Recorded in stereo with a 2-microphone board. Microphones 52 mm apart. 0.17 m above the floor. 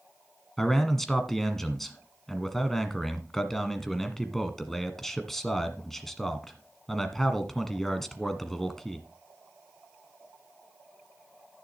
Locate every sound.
0.6 s a man speaking: 5° left (ahead or behind), 1.4 m